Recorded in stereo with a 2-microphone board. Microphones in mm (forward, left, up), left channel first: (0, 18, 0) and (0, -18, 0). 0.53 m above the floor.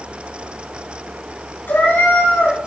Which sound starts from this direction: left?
A cat meowing, at 1.7 s.